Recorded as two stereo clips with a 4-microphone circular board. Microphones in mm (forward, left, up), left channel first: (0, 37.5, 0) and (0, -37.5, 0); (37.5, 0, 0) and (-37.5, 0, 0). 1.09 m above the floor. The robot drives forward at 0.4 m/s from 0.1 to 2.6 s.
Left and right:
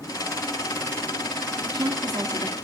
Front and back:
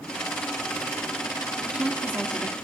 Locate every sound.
1.6 s a woman speaking: 110° right, 2 m; by 2.5 s 115° right, 2 m